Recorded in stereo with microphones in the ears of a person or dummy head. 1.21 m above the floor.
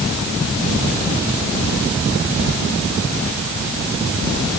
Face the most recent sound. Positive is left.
No sound to turn to.